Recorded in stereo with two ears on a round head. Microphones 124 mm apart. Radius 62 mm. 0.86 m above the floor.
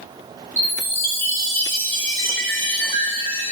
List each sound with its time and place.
0.6 s a chime: 15° left (ahead or behind), 1.1 m